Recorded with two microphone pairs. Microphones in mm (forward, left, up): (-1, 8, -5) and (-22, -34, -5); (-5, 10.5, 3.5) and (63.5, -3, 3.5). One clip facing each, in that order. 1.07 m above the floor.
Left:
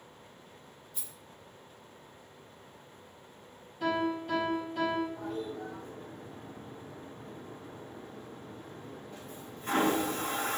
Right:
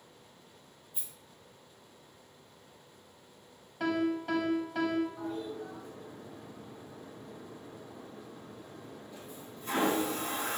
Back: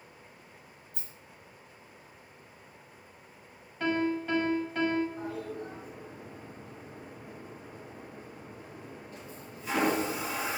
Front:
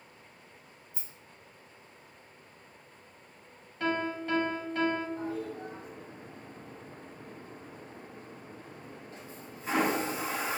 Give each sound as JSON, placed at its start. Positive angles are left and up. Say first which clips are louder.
{"t": 0.9, "sound": "a rattle", "louder": "even, back 1 dB", "azimuth_deg": 170, "distance_m": 0.8}
{"t": 3.8, "sound": "a piano", "louder": "even, back 2 dB", "azimuth_deg": -100, "distance_m": 0.9}
{"t": 5.2, "sound": "a toilet flushing", "louder": "left 1 dB, front 1 dB", "azimuth_deg": 35, "distance_m": 0.9}